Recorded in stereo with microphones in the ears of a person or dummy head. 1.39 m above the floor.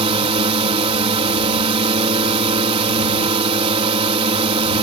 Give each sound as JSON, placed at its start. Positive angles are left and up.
{"t": 0.0, "sound": "a drone", "side_deg": -35}